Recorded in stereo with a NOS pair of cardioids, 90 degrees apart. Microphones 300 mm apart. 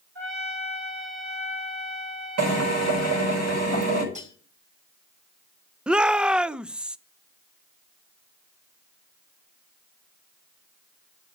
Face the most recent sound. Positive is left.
turn(degrees=-5)